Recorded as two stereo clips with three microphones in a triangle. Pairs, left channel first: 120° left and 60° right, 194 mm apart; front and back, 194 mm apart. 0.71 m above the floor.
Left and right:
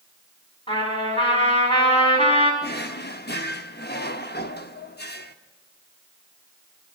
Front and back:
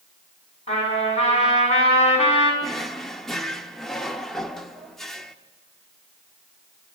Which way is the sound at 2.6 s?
90° left.